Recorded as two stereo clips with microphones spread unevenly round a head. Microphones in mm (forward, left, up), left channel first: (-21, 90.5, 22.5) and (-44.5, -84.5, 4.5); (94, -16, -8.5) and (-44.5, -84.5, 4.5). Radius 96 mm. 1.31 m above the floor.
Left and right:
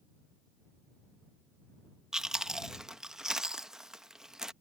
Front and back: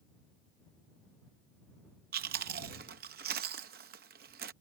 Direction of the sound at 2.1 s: 175° left.